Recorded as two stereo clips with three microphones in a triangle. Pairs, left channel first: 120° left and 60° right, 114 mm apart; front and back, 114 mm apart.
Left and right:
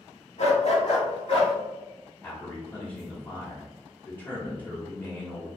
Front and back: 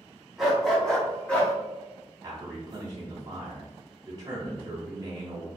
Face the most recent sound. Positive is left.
turn(degrees=-175)